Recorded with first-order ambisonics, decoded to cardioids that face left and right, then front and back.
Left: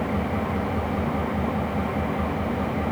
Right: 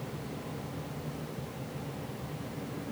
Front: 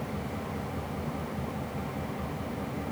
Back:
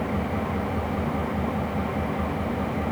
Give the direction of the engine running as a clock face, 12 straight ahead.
8 o'clock.